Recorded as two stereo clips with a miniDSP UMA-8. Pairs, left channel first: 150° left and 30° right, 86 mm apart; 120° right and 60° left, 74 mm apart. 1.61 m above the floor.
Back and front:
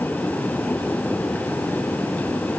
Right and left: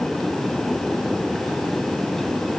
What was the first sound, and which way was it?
Only background noise.